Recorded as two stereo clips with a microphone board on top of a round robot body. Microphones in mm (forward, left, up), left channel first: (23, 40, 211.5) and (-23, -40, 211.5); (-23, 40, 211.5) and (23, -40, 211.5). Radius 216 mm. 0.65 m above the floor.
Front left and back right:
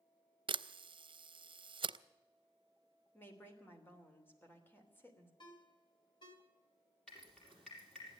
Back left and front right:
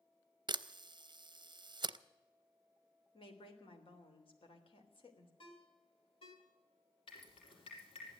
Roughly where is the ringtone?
Left.